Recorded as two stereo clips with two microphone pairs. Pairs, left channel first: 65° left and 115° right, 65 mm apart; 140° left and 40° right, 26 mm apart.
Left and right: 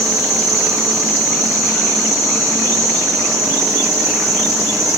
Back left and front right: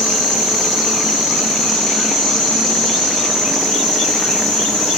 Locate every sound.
0.0 s an insect: 130° right, 3.5 m